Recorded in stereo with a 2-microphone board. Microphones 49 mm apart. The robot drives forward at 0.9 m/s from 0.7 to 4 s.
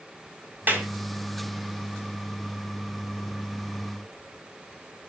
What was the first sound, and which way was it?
A clap, 40° right (ahead or behind).